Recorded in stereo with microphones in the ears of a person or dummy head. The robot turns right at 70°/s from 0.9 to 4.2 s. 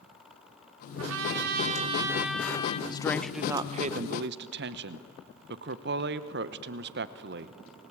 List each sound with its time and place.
1.0 s a trumpet: 90° right, 2.5 m; by 2.8 s 35° left, 2.5 m
2.9 s a woman speaking: 155° left, 0.8 m; by 7.5 s 110° right, 0.8 m